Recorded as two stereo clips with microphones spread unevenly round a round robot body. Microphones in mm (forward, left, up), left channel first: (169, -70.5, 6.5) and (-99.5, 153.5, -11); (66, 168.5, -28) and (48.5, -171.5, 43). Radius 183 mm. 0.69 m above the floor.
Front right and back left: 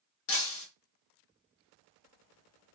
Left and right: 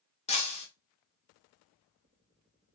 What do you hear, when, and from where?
0.3 s breaking glass: 15° left, 1.1 m